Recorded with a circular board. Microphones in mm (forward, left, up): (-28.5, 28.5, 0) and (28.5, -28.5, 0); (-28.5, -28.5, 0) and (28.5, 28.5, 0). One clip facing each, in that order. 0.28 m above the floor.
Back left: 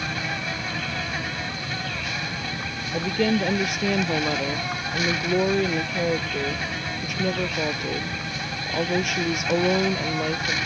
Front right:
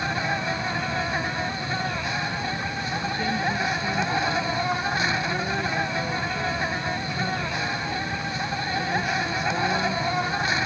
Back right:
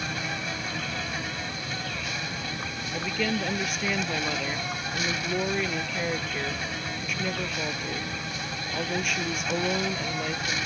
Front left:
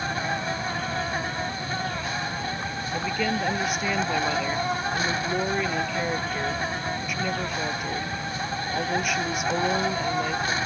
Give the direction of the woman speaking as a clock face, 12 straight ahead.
8 o'clock.